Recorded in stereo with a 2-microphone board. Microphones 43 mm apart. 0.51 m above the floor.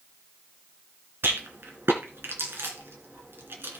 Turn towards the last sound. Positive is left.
turn(degrees=-60)  # may be behind; listen again after turning